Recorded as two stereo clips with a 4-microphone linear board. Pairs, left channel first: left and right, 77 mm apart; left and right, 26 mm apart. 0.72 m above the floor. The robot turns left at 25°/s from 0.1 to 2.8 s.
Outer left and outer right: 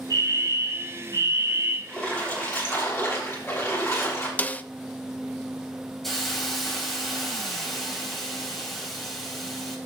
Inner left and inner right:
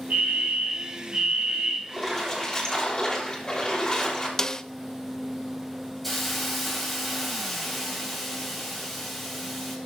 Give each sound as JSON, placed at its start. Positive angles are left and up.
{"t": 0.1, "sound": "a fire alarm", "azimuth_deg": -100, "distance_m": 4.0}
{"t": 1.9, "sound": "a splash", "side_deg": 5, "distance_m": 5.5}
{"t": 4.4, "sound": "a snare drum", "side_deg": 20, "distance_m": 0.5}
{"t": 6.0, "sound": "a hiss", "side_deg": 5, "distance_m": 3.0}